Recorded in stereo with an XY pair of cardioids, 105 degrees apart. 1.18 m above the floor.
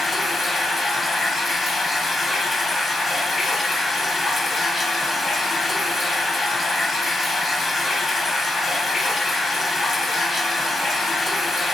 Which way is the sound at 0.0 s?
25° left.